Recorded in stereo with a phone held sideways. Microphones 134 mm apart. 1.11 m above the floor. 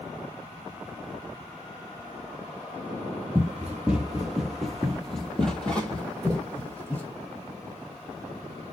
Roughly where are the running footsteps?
Centre.